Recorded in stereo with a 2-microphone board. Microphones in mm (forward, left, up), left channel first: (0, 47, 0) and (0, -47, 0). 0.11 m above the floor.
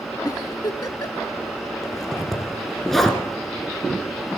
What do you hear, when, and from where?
0.2 s a giggle: 40° left (ahead or behind), 0.6 m
1.8 s a zipper: 5° left (ahead or behind), 1.4 m